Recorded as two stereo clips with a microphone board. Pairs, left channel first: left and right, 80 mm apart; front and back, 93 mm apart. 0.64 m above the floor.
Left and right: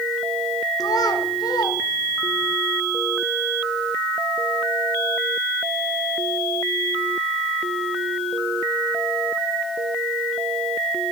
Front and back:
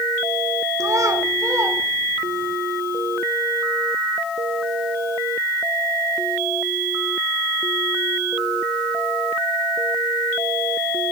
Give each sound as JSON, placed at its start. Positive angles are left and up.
{"t": 0.8, "sound": "a child speaking", "azimuth_deg": 125, "distance_m": 1.8}